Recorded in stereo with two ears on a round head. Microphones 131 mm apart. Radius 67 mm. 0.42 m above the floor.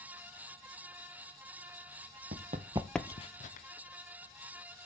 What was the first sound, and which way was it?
Running footsteps, 60° right (ahead or behind).